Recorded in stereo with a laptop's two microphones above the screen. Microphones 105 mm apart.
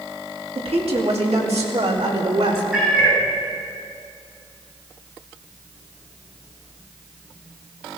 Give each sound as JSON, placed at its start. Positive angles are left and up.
{"t": 0.6, "sound": "a woman speaking", "side_deg": -65, "distance_m": 2.0}
{"t": 2.7, "sound": "a cat meowing", "side_deg": -10, "distance_m": 5.0}